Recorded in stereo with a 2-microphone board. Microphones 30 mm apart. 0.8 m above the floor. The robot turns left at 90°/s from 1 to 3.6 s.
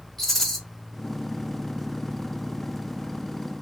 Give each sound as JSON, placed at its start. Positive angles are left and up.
{"t": 0.2, "sound": "a rattle", "side_deg": 10, "distance_m": 0.8}